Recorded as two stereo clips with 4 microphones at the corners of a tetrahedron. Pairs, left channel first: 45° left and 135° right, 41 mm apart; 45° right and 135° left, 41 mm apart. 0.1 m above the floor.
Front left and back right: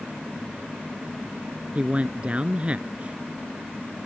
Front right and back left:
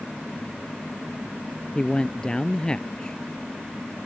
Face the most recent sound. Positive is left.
turn(degrees=-100)